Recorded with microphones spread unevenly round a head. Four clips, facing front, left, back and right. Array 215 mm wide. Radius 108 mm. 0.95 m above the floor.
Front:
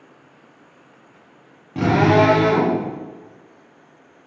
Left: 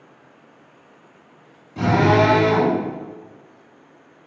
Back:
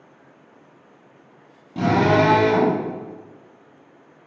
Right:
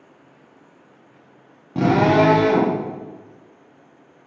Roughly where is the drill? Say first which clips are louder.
Right 1 dB, front 2 dB; right.